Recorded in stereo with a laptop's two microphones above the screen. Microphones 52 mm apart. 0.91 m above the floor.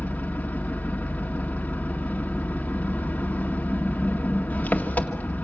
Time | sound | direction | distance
0.0 | an engine running | 30° left (ahead or behind) | 1.9 m